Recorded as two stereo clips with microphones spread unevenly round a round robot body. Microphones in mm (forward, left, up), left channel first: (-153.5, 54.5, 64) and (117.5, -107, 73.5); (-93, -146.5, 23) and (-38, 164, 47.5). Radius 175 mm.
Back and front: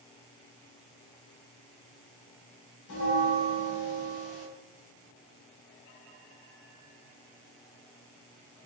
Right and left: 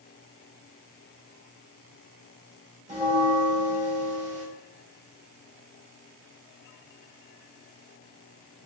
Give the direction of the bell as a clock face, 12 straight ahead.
7 o'clock.